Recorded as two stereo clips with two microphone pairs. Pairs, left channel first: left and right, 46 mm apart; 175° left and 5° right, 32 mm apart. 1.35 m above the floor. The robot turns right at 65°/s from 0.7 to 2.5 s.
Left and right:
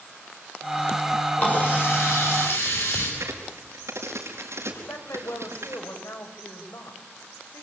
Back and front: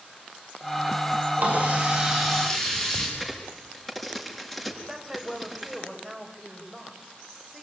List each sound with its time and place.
1.4 s a running tap: 30° left, 10 m; by 3.1 s 100° left, 10 m
3.2 s a crack: 100° right, 5 m
4.8 s a woman speaking: 80° left, 5.5 m